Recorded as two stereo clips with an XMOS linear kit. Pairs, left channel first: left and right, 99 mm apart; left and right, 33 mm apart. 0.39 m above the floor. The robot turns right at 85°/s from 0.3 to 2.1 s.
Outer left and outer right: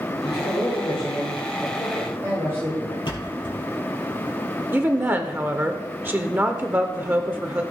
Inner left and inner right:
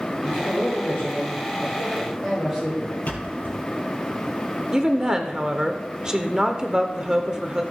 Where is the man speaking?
50° left, 5.5 m; by 3.0 s 155° right, 5.5 m.